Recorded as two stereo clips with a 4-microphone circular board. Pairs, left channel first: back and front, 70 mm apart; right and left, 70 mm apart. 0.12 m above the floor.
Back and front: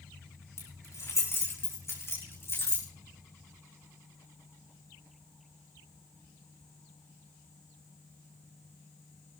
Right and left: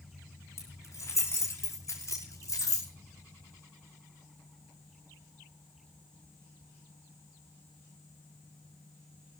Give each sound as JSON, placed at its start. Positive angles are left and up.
{"t": 0.6, "sound": "keys jangling", "azimuth_deg": -135, "distance_m": 5.0}